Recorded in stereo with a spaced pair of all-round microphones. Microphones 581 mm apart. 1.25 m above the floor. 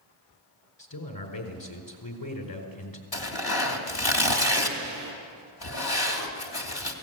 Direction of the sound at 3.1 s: 40° left (ahead or behind).